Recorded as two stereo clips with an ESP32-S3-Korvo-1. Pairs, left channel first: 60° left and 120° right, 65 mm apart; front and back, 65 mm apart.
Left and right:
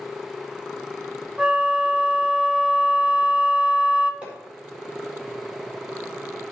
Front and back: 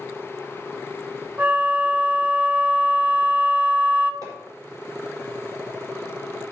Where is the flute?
175° left, 0.9 m.